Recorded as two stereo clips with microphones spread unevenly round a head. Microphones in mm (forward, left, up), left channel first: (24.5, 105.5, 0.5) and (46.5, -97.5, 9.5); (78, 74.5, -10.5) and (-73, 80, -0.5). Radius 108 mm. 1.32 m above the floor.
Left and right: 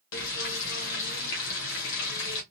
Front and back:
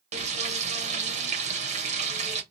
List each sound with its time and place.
0.1 s frying: 135° left, 1.1 m